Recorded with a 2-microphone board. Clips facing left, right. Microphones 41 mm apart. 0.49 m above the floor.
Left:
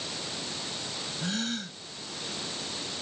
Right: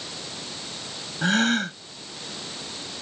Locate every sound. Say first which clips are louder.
1.2 s a gasp: right 13 dB; 65° right (ahead or behind)